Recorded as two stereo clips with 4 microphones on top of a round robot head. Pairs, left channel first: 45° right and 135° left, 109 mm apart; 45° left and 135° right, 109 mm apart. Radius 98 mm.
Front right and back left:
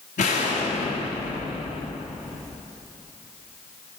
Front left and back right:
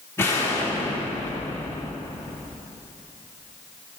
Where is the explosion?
25° right, 1.1 m.